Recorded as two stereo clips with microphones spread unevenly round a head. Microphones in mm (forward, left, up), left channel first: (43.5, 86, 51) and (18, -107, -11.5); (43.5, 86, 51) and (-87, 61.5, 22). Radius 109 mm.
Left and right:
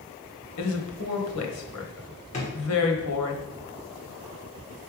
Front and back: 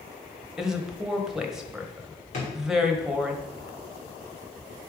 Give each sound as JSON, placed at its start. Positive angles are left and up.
{"t": 0.6, "sound": "a woman speaking", "azimuth_deg": 105, "distance_m": 1.3}
{"t": 2.3, "sound": "a drawer", "azimuth_deg": 35, "distance_m": 2.5}